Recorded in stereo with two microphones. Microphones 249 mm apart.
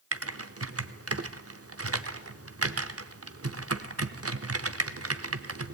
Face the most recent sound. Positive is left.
turn(degrees=-70)  # may be behind; listen again after turning